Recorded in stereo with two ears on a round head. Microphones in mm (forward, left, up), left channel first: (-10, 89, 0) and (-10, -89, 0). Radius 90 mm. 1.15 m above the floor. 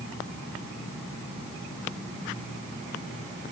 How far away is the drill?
I don't hear a drill.